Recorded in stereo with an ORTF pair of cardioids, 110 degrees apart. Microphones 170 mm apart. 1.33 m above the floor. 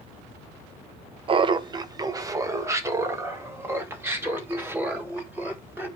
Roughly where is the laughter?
Ahead right.